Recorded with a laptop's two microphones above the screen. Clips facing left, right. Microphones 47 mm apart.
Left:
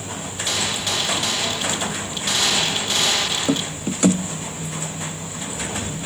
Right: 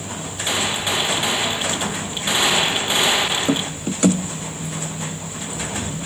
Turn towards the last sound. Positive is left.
turn(degrees=-20)  # may be behind; listen again after turning